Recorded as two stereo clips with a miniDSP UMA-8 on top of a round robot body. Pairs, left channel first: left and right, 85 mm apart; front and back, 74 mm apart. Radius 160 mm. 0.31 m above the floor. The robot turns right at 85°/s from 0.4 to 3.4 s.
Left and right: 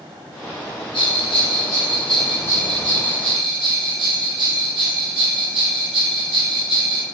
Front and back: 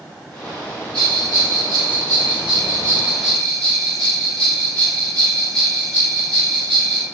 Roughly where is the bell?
Left.